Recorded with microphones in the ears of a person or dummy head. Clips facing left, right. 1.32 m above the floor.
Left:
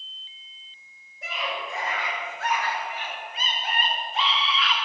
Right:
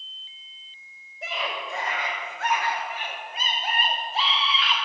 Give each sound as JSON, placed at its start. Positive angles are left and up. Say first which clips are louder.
{"t": 1.2, "sound": "a scream", "louder": "even", "side_deg": -55, "distance_m": 6.5}